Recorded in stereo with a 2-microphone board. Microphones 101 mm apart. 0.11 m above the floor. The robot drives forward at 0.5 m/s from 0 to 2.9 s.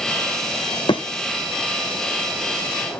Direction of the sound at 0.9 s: 50° left (ahead or behind).